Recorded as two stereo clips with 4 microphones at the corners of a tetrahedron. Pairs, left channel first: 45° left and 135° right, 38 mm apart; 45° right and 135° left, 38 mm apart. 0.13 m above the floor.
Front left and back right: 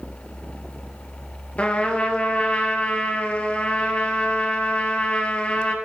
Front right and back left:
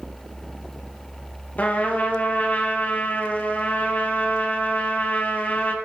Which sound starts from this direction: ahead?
A trumpet, at 1.6 s.